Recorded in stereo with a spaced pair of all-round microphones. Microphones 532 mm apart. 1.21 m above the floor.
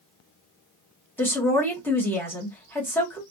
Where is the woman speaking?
5° left (ahead or behind), 1.2 m.